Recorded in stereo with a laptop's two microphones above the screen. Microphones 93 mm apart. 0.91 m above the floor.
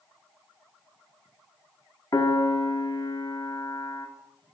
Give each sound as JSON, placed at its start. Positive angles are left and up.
{"t": 2.1, "sound": "a piano", "side_deg": 45, "distance_m": 1.3}